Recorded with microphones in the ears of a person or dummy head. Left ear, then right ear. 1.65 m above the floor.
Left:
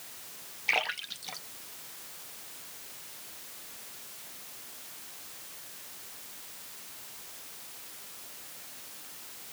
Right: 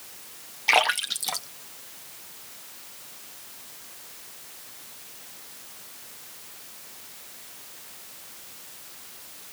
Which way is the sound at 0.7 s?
40° right (ahead or behind).